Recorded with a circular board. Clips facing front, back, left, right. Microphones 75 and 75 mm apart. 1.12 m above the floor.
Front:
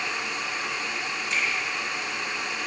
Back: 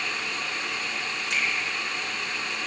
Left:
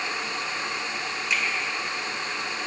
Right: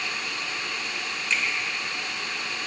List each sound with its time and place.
1.3 s a finger snap: 170° left, 3.5 m